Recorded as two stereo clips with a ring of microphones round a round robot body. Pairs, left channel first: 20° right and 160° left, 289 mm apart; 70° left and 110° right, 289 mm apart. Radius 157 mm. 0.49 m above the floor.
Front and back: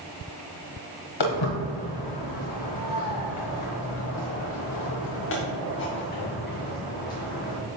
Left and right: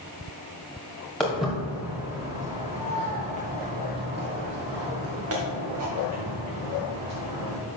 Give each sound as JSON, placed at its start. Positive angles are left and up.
{"t": 1.2, "sound": "footsteps", "azimuth_deg": -20, "distance_m": 3.0}